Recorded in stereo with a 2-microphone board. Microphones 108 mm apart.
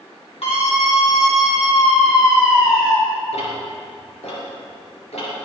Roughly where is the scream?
Left.